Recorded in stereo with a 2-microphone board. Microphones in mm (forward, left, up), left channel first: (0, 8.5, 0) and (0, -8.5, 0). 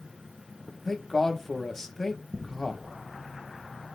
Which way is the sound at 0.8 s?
35° left (ahead or behind).